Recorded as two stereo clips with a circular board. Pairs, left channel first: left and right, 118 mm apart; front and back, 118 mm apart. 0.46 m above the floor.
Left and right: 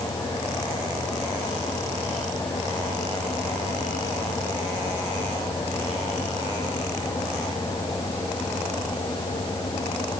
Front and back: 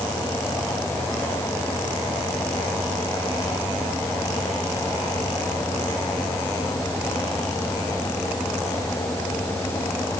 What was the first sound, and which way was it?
Only background noise.